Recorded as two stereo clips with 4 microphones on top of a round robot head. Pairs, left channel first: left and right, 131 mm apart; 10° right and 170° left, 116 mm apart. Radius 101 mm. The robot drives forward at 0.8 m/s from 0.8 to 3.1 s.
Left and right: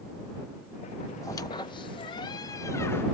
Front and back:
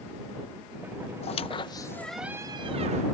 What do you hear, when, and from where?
1.2 s a squeak: 15° left; by 3.0 s 160° left